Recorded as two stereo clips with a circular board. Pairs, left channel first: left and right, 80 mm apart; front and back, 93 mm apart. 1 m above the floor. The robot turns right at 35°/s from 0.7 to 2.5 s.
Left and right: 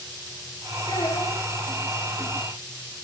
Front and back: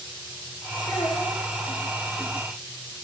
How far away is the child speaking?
About 4 m.